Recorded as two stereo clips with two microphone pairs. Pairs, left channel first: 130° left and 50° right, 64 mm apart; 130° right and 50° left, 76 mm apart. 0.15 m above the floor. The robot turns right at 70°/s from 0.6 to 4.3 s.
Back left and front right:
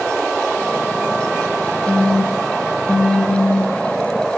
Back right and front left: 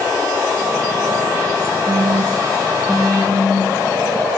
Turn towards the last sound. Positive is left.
turn(degrees=-130)